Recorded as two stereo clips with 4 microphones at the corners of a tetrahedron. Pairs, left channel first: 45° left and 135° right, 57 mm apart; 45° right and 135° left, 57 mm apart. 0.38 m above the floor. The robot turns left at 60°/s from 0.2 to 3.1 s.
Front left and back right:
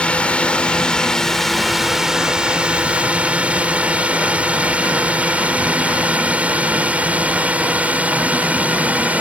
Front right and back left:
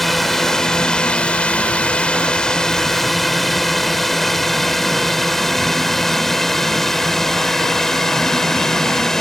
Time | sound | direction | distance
0.0 | a drone | 40° left | ?